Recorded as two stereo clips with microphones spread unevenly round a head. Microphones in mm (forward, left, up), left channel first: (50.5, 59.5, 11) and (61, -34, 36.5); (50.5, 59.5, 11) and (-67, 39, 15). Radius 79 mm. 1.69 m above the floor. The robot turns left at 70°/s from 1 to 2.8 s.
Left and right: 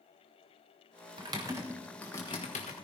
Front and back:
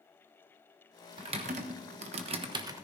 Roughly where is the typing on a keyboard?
Behind right.